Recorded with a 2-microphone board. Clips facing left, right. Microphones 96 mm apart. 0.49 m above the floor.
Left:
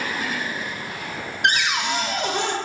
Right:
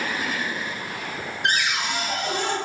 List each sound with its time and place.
1.4 s a cupboard door: 75° left (ahead or behind), 0.6 m